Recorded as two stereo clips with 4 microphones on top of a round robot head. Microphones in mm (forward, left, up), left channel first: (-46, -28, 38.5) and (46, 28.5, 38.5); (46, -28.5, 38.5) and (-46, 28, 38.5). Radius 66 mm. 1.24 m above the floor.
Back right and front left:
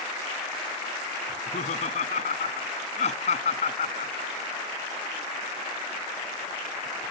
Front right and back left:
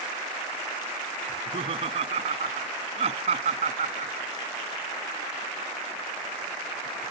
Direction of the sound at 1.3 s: 170° right.